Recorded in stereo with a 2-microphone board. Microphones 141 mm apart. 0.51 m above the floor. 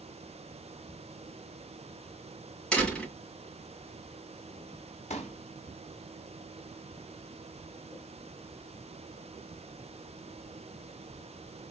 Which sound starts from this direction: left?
A pop, at 5.1 s.